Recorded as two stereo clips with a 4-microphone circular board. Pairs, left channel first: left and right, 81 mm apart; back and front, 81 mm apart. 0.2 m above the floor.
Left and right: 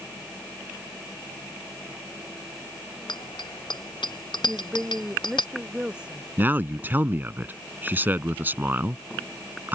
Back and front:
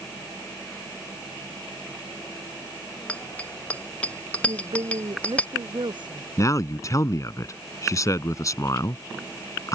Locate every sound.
3.1 s a bicycle bell: 105° left
4.5 s a woman speaking: 15° right
6.4 s a man speaking: 150° right